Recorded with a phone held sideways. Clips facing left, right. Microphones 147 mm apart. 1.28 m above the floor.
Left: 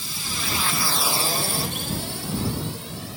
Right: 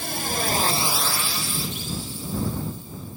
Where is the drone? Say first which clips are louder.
Right 7 dB; 65° right (ahead or behind); by 3.2 s 80° left.